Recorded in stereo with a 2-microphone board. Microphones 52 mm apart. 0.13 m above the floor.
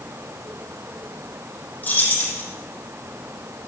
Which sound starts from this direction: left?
Keys jangling, at 1.8 s.